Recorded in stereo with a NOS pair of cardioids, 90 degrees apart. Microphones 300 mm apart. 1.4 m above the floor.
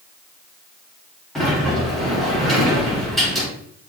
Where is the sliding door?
Straight ahead, 3 m.